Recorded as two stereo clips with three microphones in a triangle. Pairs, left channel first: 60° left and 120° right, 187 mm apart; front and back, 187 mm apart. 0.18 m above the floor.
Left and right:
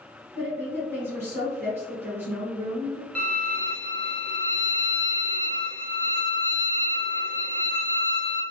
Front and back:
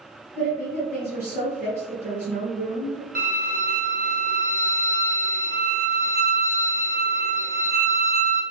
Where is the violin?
140° left, 0.8 m.